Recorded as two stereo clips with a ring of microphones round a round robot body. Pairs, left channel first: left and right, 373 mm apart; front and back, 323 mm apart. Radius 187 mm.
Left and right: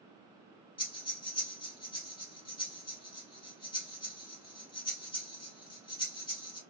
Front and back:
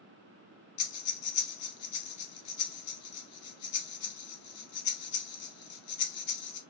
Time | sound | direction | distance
0.8 | breathing | 10° left | 0.8 m